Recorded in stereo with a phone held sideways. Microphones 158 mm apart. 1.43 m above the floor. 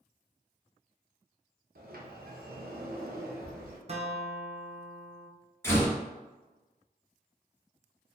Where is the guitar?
40° right (ahead or behind), 0.6 m.